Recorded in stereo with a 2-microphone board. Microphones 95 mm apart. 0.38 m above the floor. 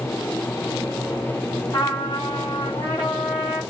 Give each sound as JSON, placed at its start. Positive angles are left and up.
{"t": 1.7, "sound": "a trumpet", "side_deg": 55, "distance_m": 3.0}